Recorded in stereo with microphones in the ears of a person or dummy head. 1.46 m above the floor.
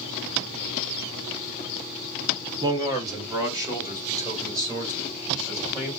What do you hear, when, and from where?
2.6 s a man speaking: 20° right (ahead or behind), 0.9 m